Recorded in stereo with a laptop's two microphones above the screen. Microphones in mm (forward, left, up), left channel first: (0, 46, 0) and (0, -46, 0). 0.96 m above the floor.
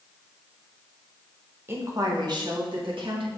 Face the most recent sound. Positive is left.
turn(degrees=-65)  # may be behind; listen again after turning